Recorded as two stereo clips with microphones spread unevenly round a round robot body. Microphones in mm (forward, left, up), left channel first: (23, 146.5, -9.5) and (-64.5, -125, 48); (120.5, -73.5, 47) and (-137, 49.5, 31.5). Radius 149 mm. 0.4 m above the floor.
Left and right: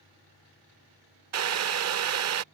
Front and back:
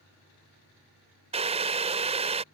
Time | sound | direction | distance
1.3 | boiling | 140° right | ?